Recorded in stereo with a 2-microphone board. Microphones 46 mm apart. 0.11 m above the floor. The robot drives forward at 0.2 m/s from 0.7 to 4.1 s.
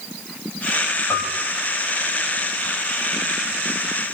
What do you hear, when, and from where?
1.1 s a piano: 80° left, 3.5 m